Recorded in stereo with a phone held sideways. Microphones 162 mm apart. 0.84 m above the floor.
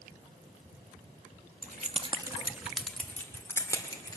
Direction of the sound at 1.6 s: 60° right (ahead or behind).